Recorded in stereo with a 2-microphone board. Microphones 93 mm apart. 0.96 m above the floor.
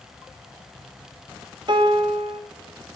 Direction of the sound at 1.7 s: 55° right (ahead or behind).